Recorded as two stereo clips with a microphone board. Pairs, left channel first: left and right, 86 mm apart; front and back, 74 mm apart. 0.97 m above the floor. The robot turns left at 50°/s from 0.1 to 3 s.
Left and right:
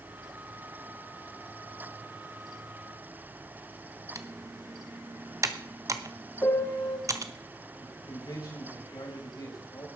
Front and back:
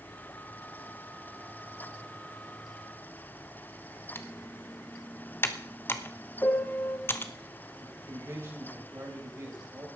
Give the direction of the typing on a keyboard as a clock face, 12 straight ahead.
2 o'clock.